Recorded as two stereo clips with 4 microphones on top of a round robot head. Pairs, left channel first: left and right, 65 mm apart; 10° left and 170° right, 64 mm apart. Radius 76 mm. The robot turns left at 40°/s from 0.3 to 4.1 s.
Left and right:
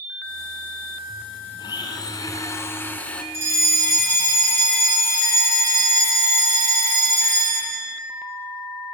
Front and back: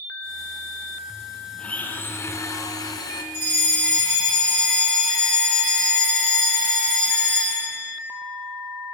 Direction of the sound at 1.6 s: 85° left.